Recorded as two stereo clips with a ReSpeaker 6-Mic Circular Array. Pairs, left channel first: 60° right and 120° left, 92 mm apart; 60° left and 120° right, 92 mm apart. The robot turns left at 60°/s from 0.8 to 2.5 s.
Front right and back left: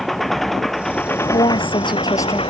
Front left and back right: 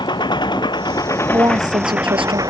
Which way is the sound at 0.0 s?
25° left.